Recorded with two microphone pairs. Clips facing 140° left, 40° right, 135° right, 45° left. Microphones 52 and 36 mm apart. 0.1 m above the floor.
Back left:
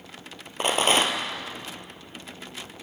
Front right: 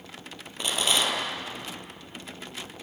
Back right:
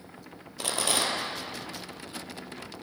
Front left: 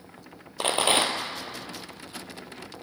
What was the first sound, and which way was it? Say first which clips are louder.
A rattle: back left 5 dB, front left 5 dB; 95° left.